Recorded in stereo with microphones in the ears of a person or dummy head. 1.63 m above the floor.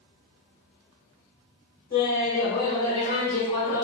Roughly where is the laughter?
Left.